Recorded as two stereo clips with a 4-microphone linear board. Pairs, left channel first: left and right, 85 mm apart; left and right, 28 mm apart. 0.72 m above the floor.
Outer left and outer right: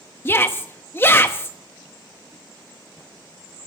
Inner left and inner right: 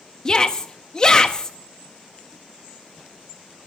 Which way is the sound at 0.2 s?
25° left (ahead or behind).